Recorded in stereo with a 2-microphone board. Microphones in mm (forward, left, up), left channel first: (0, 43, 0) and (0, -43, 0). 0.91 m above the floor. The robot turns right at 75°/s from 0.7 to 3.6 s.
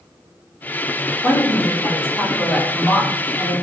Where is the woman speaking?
50° left, 1.4 m; by 3.5 s 140° right, 1.4 m.